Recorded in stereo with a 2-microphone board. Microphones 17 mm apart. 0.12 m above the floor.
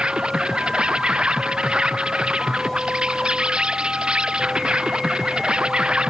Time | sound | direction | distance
0.0 | an insect | 65° right (ahead or behind) | ?